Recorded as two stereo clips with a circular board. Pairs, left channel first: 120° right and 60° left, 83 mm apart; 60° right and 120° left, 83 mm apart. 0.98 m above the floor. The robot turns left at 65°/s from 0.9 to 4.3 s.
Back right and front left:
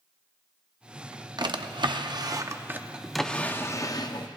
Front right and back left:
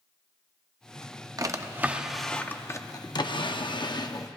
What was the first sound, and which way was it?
A drawer, 85° left.